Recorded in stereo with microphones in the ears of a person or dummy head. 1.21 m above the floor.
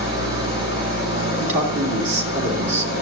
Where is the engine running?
25° right (ahead or behind), 5.5 m.